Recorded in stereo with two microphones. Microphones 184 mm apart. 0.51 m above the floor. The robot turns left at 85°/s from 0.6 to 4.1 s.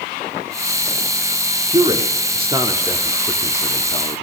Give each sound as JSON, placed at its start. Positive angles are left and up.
{"t": 1.7, "sound": "a man speaking", "side_deg": -25, "distance_m": 0.8}